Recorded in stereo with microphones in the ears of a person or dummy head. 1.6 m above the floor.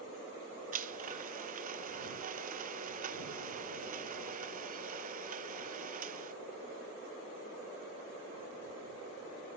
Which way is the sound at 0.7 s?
45° right (ahead or behind).